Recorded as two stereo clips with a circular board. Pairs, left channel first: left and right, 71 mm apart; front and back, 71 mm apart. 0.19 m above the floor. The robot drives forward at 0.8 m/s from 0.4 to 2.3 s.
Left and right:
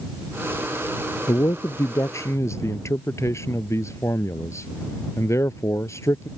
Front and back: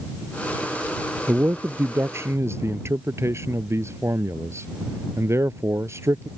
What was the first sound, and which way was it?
A man speaking, 120° left.